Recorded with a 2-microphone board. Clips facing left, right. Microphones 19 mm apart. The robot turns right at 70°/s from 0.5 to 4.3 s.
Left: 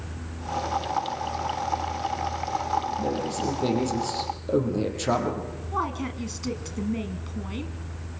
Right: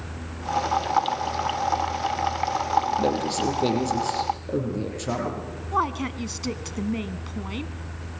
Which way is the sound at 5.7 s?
25° right (ahead or behind).